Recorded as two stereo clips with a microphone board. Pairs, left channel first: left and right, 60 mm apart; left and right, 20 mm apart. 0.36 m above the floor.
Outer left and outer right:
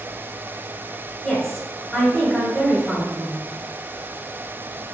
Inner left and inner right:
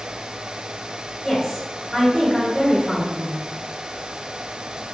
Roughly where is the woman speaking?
Centre.